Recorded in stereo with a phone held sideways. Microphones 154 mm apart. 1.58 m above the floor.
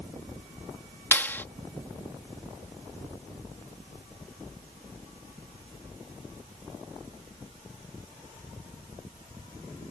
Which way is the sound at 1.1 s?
15° left (ahead or behind).